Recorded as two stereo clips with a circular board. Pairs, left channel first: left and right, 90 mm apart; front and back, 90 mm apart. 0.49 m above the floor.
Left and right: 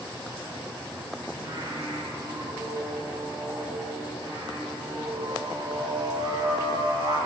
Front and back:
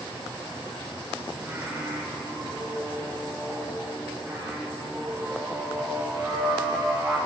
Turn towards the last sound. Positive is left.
turn(degrees=-120)